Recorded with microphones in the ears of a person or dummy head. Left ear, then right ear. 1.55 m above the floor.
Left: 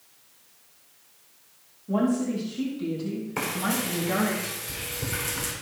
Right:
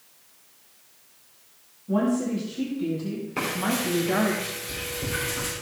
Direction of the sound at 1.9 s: 10° left (ahead or behind).